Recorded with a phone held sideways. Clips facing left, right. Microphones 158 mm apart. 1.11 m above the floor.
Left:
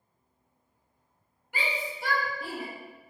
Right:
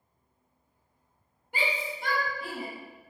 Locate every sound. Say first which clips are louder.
1.5 s a shout: right 1 dB; 30° right (ahead or behind), 1.4 m; by 2.7 s 45° left (ahead or behind), 1.5 m